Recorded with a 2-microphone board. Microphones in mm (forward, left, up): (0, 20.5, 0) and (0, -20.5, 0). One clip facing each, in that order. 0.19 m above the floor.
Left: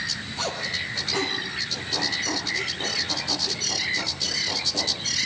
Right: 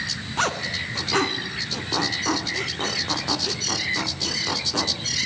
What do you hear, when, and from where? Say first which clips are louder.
0.4 s a zipper: right 5 dB; 55° right (ahead or behind), 2.5 m